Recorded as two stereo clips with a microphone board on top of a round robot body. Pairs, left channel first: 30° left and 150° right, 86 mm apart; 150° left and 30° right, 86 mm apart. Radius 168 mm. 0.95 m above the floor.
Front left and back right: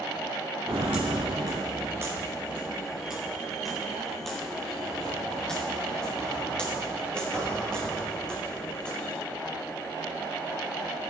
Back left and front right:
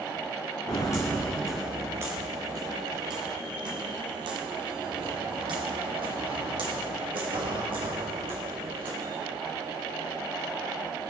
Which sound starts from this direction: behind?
Footsteps, at 0.7 s.